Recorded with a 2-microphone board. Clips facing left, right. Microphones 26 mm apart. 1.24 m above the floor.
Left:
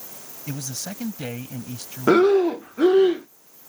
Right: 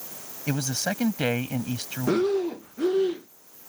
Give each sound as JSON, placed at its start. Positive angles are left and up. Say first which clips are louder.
{"t": 0.5, "sound": "a man speaking", "louder": "right 5 dB", "side_deg": -45}
{"t": 2.1, "sound": "breathing", "louder": "left 8 dB", "side_deg": 75}